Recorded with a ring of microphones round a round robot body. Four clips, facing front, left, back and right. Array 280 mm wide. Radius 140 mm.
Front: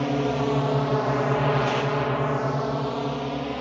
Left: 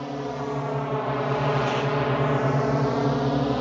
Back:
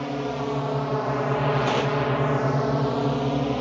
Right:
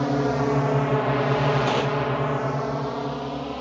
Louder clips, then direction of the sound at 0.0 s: Right 7 dB, front 4 dB; 60° right.